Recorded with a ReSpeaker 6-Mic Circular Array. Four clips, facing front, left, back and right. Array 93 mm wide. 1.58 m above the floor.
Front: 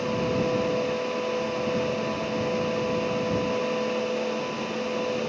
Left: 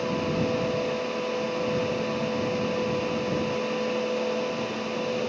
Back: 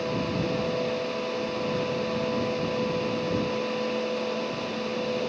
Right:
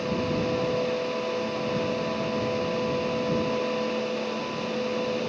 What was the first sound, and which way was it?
Only background noise.